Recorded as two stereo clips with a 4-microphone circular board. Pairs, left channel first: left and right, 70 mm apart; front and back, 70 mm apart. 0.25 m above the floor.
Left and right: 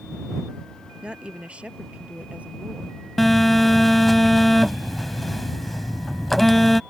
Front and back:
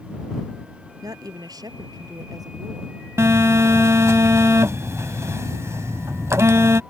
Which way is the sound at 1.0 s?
165° right.